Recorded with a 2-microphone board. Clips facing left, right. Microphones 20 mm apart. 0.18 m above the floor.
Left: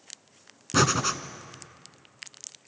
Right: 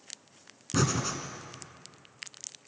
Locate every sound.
0.7 s breathing: 40° left (ahead or behind), 1.2 m